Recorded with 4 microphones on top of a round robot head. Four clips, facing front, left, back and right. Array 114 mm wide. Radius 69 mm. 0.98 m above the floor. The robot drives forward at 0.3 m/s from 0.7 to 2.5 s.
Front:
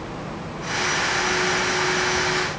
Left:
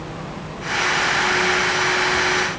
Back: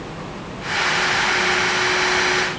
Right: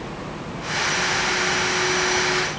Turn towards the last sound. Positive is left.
No sound to turn to.